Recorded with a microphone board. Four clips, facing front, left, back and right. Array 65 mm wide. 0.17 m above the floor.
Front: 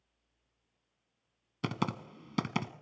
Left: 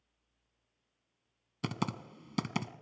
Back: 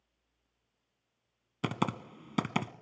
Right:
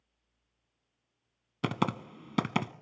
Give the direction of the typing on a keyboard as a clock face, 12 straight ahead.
4 o'clock.